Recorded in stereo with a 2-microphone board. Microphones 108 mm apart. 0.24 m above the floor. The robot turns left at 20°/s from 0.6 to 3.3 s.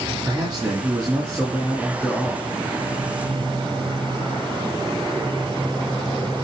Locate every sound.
0.2 s a man speaking: 130° right, 2 m; by 2.5 s 165° right, 2 m